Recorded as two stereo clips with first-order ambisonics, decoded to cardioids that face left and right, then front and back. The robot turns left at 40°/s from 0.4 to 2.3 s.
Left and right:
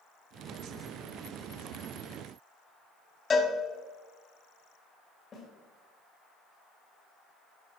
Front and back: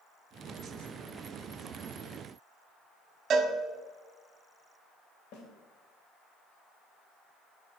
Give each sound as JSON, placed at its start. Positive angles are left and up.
{"t": 3.3, "sound": "a cowbell", "azimuth_deg": 145, "distance_m": 1.0}
{"t": 5.3, "sound": "a snare drum", "azimuth_deg": 15, "distance_m": 2.5}